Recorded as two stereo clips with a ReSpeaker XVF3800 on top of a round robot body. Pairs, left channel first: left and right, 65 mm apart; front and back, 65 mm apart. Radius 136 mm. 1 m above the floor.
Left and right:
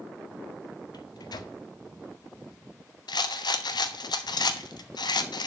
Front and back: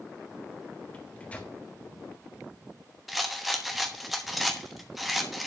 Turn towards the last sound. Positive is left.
turn(degrees=90)